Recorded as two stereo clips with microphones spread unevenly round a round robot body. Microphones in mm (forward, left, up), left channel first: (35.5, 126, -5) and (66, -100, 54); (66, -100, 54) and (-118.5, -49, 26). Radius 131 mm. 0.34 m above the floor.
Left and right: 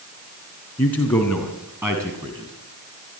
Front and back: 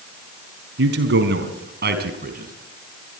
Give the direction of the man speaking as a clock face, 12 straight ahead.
6 o'clock.